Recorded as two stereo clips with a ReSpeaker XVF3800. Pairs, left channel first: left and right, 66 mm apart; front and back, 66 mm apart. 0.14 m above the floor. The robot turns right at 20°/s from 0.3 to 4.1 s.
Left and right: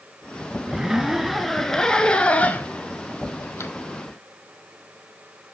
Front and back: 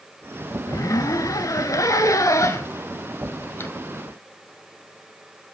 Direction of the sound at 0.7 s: 15° right.